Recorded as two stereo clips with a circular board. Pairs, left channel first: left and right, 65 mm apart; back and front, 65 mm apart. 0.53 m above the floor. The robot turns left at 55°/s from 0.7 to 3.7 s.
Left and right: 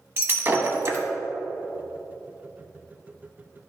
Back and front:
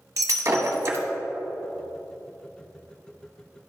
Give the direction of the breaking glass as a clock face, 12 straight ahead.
1 o'clock.